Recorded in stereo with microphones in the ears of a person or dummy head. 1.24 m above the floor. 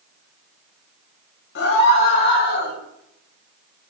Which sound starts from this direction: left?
A scream, at 1.6 s.